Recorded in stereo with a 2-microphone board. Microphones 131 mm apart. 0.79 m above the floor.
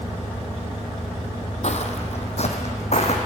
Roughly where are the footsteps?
Left.